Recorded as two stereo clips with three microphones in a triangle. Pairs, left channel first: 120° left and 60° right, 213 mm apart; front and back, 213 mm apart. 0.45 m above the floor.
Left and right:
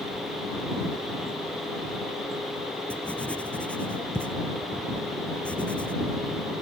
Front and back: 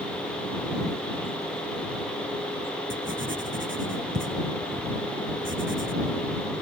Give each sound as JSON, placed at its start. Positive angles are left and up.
{"t": 2.9, "sound": "writing", "azimuth_deg": -155}